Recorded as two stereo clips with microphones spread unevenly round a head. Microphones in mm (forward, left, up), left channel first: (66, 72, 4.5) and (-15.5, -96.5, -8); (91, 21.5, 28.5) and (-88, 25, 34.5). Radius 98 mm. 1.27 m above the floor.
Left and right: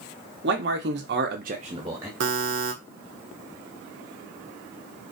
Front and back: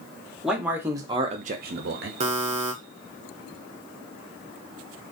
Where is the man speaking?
95° right, 1.1 m; by 2.1 s 165° left, 0.7 m.